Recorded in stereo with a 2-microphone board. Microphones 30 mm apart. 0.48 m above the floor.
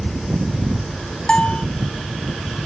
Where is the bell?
35° left (ahead or behind).